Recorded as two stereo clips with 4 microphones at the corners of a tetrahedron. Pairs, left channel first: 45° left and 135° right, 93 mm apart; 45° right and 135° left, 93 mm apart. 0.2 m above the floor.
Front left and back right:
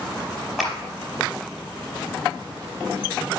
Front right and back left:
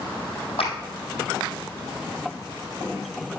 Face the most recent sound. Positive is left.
turn(degrees=-45)